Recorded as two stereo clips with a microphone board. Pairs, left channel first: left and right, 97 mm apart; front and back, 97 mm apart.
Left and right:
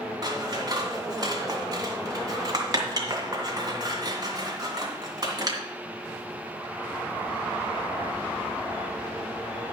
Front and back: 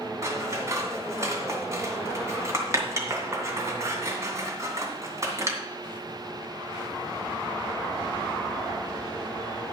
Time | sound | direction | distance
0.2 | scissors | 125° right | 2.5 m